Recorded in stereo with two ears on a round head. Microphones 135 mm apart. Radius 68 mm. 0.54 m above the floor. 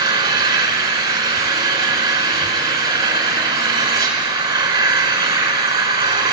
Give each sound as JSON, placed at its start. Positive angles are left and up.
{"t": 0.0, "sound": "an engine running", "side_deg": -30, "distance_m": 4.5}